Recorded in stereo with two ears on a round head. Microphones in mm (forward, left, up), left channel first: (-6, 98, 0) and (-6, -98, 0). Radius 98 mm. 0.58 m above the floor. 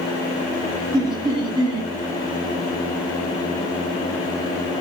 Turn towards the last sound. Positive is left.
turn(degrees=-20)  # may be behind; listen again after turning